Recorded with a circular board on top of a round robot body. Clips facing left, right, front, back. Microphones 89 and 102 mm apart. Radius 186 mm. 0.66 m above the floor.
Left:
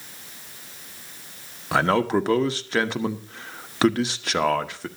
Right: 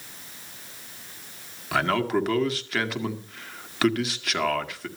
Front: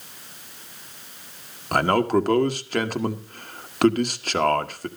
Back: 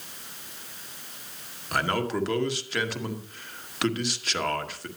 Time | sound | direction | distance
1.7 | a man speaking | 35° left | 1.4 m